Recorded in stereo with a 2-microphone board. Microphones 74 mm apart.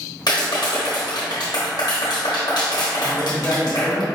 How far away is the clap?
About 1.0 m.